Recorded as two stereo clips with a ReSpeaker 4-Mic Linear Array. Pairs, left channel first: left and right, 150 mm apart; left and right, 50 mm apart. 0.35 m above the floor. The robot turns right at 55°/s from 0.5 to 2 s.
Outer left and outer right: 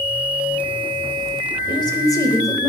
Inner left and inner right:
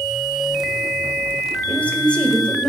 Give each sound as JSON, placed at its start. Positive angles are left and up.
{"t": 1.7, "sound": "a woman speaking", "side_deg": 30, "distance_m": 1.2}